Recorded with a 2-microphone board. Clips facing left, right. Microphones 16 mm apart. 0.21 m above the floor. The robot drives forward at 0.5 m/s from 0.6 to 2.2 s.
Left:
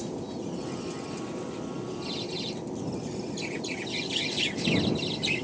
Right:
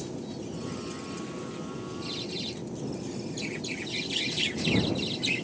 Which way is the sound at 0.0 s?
30° left (ahead or behind).